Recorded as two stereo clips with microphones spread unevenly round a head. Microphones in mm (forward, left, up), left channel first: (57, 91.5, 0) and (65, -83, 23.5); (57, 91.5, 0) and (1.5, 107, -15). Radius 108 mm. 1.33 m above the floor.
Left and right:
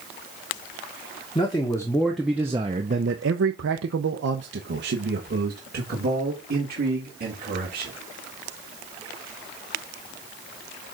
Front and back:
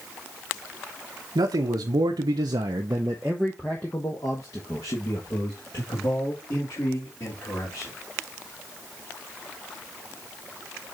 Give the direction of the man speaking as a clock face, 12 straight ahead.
7 o'clock.